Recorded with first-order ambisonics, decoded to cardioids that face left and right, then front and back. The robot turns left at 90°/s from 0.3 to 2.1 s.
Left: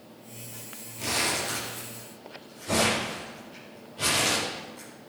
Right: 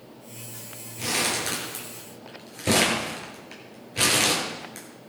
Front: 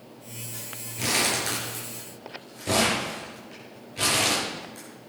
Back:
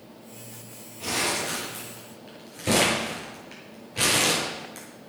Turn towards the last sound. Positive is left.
turn(degrees=-110)